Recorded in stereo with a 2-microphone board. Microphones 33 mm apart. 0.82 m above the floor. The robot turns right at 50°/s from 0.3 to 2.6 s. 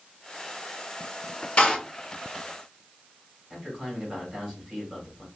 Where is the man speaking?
15° right (ahead or behind), 3 m.